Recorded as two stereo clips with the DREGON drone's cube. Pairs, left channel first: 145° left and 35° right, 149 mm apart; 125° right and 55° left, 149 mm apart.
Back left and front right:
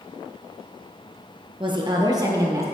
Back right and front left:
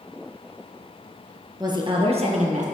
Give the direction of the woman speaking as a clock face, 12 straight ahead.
12 o'clock.